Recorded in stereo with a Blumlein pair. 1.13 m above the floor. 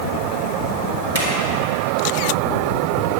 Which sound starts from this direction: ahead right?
A drawer, at 1.1 s.